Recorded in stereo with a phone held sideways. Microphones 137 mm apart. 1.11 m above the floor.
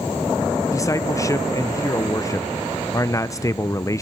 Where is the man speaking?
25° left (ahead or behind), 0.7 m.